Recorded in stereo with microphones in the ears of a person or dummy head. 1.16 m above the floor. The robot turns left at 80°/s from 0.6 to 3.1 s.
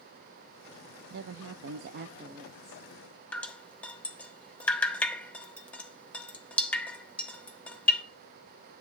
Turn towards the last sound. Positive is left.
turn(degrees=5)  # may be behind; listen again after turning